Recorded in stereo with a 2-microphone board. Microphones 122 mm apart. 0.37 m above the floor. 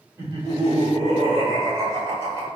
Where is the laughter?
20° right (ahead or behind), 1.3 m.